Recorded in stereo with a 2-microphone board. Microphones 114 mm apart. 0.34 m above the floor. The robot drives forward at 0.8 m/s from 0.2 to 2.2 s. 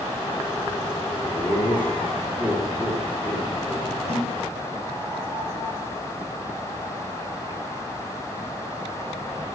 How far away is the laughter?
About 6 m.